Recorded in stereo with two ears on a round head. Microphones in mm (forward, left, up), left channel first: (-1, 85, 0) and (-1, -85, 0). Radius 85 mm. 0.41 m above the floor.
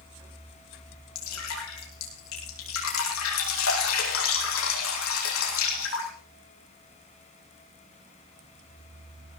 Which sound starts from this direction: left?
Dripping, at 1.1 s.